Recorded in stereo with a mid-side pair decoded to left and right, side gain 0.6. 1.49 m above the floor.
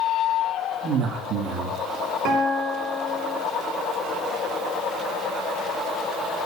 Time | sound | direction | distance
0.8 | a man speaking | 60° right | 2 m
2.2 | a guitar | 70° right | 3 m